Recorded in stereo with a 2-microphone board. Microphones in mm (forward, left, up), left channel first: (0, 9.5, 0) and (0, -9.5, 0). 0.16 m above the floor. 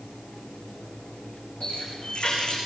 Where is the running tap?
80° left, 7 m.